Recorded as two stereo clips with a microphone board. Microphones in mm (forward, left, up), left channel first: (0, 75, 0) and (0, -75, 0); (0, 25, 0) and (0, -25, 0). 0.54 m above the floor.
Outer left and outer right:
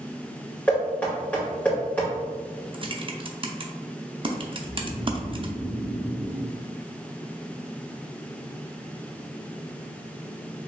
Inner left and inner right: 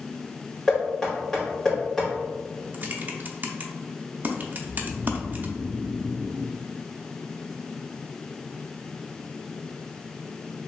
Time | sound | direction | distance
0.7 | knocking | 10° left (ahead or behind) | 1.9 m
2.7 | typing on a keyboard | 35° right (ahead or behind) | 0.5 m
4.6 | snoring | 5° left (ahead or behind) | 0.8 m